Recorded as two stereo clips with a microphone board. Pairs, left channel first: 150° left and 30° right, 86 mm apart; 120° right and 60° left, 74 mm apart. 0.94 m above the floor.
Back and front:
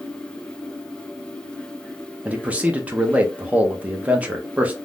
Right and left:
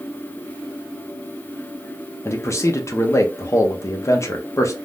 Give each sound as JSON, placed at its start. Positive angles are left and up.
{"t": 2.2, "sound": "a man speaking", "azimuth_deg": -95, "distance_m": 0.6}